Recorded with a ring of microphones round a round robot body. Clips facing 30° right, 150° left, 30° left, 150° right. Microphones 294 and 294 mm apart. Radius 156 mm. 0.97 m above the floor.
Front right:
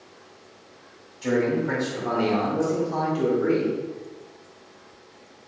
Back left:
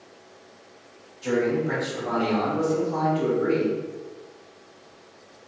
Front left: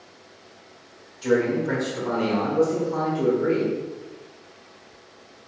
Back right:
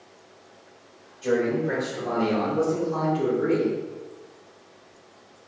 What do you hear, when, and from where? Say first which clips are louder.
1.2 s a man speaking: front right 1 dB, front left 2 dB; 20° right, 1.7 m; by 3.8 s 100° right, 2 m